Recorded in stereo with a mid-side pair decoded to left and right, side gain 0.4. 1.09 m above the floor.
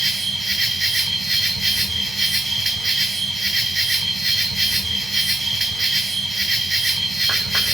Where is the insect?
25° right, 2 m.